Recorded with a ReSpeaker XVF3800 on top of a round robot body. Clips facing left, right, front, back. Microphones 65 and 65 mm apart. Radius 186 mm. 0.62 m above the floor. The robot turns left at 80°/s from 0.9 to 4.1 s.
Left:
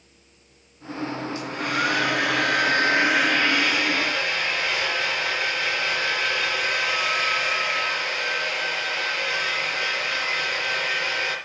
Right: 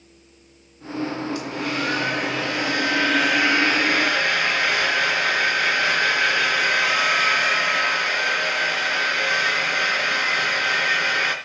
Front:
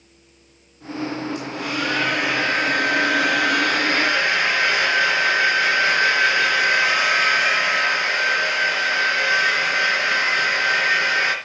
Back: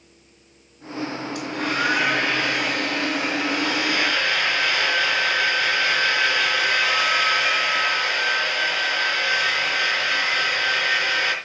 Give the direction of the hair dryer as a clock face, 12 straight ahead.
7 o'clock.